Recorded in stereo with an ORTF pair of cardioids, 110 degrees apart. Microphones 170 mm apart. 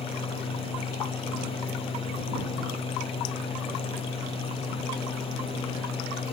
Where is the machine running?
35° left.